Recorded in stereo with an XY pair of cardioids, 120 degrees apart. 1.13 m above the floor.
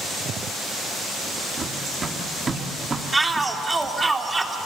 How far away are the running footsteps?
About 4 m.